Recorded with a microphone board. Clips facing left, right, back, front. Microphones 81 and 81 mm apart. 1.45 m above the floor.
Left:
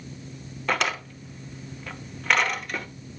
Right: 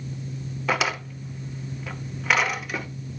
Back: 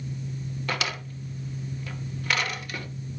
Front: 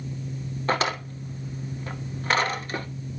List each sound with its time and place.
0.7 s a drawer: 10° right, 0.9 m